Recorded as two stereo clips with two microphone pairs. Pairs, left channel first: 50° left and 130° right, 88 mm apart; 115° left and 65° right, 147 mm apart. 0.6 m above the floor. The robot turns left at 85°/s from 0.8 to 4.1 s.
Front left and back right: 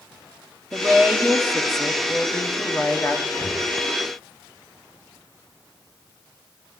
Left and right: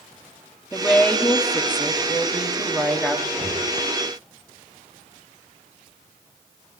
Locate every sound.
0.7 s a woman speaking: 150° right, 1.0 m; by 3.2 s 10° left, 1.0 m
3.3 s breathing: 25° left, 3 m; by 3.7 s 10° right, 3 m